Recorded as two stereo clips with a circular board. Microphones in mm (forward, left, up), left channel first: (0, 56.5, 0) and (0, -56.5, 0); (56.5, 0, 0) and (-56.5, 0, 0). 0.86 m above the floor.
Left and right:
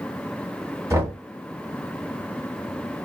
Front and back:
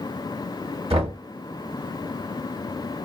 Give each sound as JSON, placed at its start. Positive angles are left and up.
{"t": 0.9, "sound": "knocking", "azimuth_deg": -155, "distance_m": 1.5}